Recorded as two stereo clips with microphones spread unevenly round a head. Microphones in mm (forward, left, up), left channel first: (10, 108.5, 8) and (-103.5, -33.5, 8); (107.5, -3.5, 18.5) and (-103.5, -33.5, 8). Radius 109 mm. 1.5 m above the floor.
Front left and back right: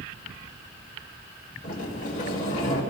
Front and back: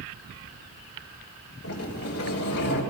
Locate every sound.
1.6 s a sliding door: 5° right, 3 m